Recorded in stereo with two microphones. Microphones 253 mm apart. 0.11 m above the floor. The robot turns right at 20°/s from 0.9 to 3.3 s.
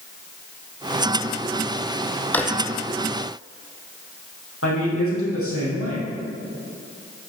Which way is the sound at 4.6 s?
60° left (ahead or behind).